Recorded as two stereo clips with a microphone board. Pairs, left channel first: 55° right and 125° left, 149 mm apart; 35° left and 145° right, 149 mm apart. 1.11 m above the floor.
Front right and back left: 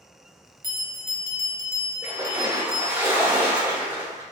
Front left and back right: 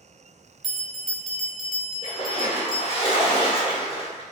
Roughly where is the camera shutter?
No camera shutter in this recording.